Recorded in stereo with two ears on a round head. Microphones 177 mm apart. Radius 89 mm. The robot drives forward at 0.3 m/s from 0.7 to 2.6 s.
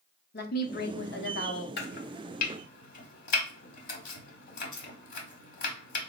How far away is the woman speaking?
About 0.8 m.